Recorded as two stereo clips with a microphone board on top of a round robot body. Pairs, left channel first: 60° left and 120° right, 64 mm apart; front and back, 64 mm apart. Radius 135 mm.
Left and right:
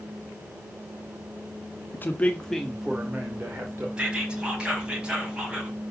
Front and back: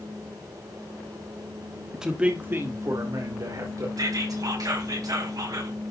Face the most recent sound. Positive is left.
turn(degrees=165)